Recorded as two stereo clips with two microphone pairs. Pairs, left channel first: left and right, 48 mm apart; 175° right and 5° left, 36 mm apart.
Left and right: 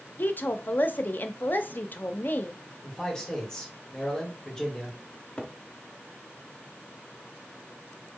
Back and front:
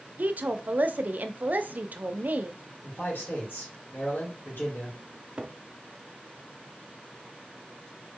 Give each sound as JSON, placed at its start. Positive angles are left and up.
{"t": 0.2, "sound": "a woman speaking", "azimuth_deg": 40, "distance_m": 0.6}
{"t": 2.8, "sound": "a man speaking", "azimuth_deg": 165, "distance_m": 2.0}
{"t": 5.1, "sound": "a cupboard door", "azimuth_deg": 35, "distance_m": 0.7}